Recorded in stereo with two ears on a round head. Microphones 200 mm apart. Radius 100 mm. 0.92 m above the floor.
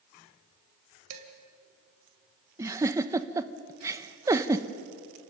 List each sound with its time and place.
1.1 s dishes clattering: 75° right (ahead or behind), 3 m
2.6 s a giggle: 15° right (ahead or behind), 0.7 m